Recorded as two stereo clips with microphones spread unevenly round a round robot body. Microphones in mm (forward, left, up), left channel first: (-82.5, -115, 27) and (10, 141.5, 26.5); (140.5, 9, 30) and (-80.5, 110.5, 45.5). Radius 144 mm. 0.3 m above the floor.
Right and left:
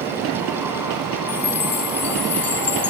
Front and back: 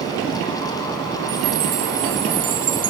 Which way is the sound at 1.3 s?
160° right.